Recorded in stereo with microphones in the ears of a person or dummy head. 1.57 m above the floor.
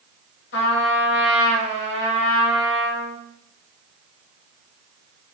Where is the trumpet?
75° left (ahead or behind), 1.5 m.